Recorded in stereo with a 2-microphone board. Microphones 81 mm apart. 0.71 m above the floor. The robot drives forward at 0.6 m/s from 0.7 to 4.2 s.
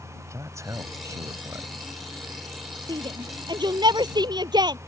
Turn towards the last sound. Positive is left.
turn(degrees=-60)  # may be behind; listen again after turning